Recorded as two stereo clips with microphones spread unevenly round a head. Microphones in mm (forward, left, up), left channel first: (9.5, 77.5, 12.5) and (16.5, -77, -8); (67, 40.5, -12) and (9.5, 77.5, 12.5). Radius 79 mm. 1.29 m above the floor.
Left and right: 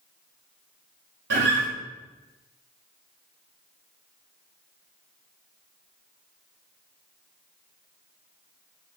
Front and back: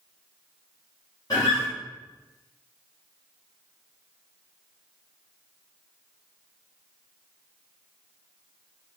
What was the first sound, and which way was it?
A guitar, 90° right.